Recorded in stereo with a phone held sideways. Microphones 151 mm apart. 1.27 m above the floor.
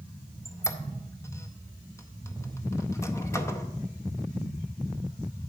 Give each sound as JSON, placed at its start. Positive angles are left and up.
{"t": 0.5, "sound": "a squeak", "side_deg": 20, "distance_m": 0.6}